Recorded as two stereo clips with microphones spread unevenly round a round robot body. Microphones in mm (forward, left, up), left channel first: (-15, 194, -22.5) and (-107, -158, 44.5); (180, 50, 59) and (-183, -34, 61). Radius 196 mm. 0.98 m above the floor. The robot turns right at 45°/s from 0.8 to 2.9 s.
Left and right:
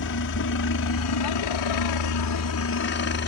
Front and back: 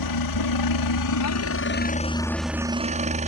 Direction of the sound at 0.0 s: 30° left.